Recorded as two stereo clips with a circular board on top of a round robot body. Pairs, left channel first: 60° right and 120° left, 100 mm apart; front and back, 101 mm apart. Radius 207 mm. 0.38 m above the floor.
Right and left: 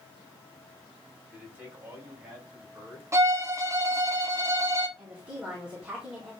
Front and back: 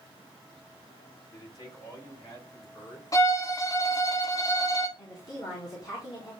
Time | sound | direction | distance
1.3 | a man speaking | 45° left | 3.5 m
3.1 | a violin | 60° left | 0.7 m
5.0 | a woman speaking | 40° left | 3.5 m